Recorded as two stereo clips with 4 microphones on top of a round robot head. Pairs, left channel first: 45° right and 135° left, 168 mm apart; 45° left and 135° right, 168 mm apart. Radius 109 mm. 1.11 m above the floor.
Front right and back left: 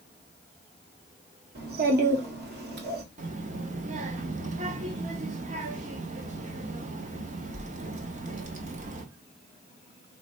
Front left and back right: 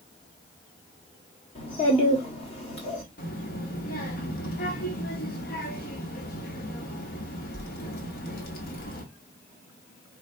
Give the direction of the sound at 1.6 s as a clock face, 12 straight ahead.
8 o'clock.